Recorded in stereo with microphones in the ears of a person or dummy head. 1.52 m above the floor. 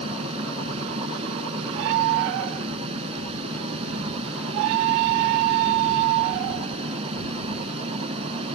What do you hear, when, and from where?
0.0 s a fan: 35° right (ahead or behind)